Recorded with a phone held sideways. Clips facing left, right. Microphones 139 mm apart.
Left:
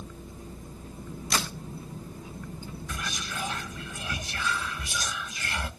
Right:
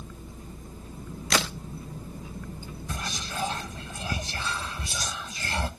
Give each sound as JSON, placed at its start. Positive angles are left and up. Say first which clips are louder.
{"t": 1.3, "sound": "a crack", "louder": "right 4 dB", "side_deg": -80, "distance_m": 0.7}
{"t": 2.9, "sound": "whispering", "louder": "right 2 dB", "side_deg": -30, "distance_m": 1.0}